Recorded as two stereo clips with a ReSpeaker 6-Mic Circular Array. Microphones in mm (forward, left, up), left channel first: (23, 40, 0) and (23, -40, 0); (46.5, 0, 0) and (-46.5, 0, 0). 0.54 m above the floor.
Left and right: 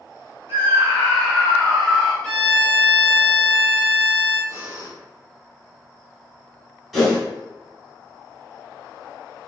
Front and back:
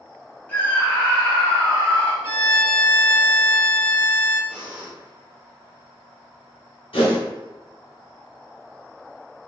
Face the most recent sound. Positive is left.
turn(degrees=-5)